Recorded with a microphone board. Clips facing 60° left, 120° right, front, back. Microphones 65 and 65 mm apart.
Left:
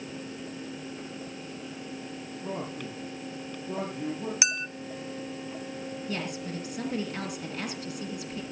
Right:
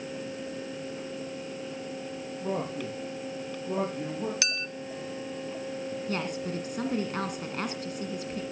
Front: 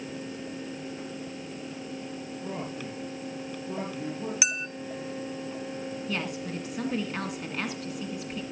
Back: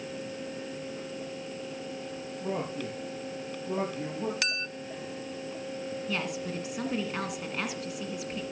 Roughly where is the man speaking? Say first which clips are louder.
Right 4 dB, back 4 dB; behind right.